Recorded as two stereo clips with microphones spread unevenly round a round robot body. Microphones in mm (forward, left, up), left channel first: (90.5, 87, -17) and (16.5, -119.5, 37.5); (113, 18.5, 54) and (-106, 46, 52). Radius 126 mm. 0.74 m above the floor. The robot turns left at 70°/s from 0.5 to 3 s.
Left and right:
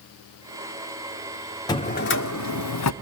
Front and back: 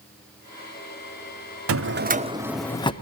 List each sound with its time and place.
1.7 s a drawer: 145° left, 0.7 m; by 2.9 s 60° left, 0.7 m